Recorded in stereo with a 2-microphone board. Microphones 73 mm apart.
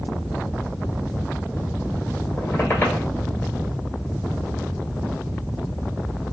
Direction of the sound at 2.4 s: 25° left (ahead or behind).